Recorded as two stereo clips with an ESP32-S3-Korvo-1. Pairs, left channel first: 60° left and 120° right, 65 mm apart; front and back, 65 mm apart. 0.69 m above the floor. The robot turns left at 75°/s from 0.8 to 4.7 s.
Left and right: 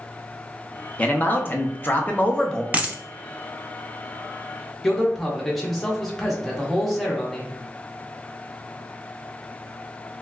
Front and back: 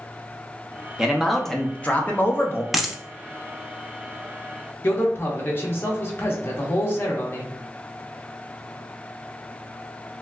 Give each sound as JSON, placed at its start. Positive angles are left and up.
{"t": 1.0, "sound": "a man speaking", "azimuth_deg": 115, "distance_m": 0.6}
{"t": 2.7, "sound": "a dropped coin", "azimuth_deg": -90, "distance_m": 0.6}
{"t": 4.8, "sound": "a man speaking", "azimuth_deg": -25, "distance_m": 1.0}